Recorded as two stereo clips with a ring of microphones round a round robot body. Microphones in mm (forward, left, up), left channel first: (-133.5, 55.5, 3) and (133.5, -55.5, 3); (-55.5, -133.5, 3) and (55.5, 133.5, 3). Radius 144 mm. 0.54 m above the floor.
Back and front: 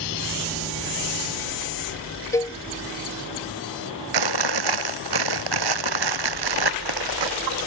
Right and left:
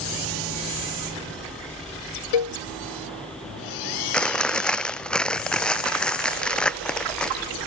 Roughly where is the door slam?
No door slam in this recording.